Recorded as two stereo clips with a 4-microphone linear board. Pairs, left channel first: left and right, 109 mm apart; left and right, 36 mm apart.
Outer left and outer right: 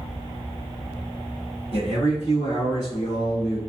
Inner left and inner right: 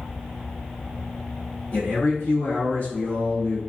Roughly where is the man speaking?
Left.